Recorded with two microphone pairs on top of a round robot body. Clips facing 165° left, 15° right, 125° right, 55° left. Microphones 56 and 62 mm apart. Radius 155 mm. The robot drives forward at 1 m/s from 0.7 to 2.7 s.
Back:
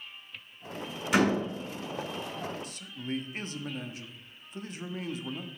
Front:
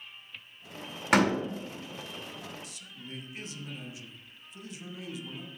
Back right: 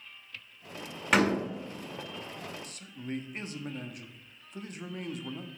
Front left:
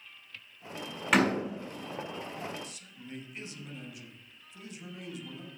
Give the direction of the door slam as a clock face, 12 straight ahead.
1 o'clock.